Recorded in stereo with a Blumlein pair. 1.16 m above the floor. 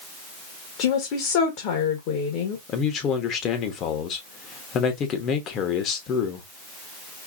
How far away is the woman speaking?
About 1.6 m.